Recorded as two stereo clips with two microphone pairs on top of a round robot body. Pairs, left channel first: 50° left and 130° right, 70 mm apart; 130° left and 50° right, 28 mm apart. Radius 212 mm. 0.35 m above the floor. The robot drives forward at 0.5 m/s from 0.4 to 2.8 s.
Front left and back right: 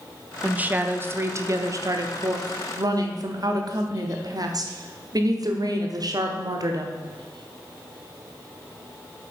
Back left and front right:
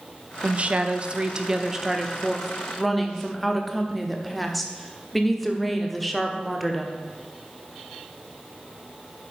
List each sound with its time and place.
0.4 s a woman speaking: 60° right, 1.2 m; by 7.0 s 140° right, 1.4 m